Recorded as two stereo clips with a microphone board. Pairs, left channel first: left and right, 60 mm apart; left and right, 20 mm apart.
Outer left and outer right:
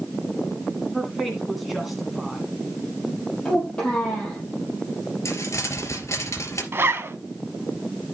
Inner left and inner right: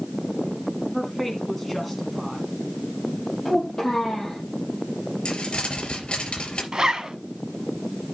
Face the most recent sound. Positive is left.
turn(degrees=-40)  # may be behind; listen again after turning